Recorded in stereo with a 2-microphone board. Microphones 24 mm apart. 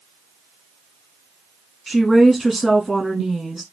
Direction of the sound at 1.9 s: 10° right (ahead or behind).